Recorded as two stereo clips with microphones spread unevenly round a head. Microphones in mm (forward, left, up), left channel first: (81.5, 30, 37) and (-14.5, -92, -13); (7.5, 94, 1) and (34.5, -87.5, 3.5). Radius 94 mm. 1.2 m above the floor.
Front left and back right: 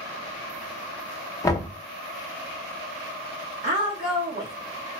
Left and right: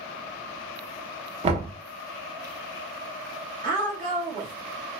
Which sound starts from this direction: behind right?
A woman speaking, at 3.6 s.